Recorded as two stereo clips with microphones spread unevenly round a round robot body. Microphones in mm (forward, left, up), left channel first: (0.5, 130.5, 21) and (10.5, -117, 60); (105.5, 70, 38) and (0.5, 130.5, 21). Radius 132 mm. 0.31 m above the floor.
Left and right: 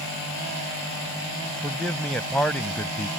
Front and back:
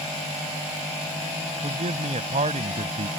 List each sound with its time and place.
1.6 s a man speaking: 175° left